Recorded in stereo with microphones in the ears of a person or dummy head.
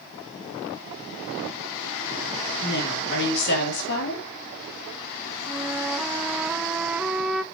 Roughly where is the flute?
Centre.